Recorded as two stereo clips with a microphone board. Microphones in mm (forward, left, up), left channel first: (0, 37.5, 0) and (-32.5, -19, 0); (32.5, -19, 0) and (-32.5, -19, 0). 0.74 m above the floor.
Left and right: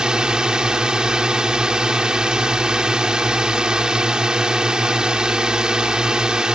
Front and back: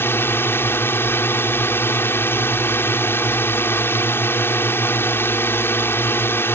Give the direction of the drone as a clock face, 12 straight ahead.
1 o'clock.